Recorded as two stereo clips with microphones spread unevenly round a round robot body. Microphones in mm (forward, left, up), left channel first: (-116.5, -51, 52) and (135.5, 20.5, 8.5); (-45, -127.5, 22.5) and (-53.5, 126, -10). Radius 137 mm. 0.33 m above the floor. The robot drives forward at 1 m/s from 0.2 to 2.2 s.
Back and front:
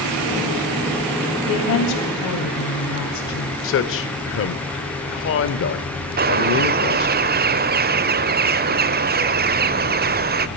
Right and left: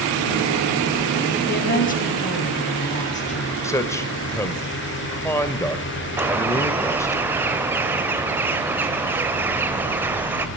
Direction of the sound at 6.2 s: 20° left.